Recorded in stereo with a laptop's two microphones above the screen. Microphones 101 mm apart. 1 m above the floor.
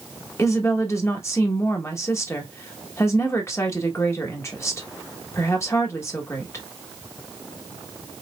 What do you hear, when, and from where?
0.4 s a woman speaking: 25° left (ahead or behind), 1.3 m